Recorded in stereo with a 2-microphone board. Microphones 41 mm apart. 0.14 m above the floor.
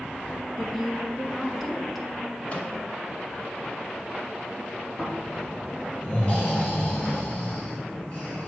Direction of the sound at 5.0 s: 35° left (ahead or behind).